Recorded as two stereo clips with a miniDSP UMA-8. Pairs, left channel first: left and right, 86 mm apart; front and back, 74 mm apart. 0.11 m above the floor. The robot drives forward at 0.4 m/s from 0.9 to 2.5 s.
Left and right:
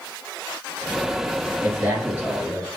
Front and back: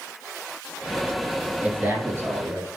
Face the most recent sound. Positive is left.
turn(degrees=-145)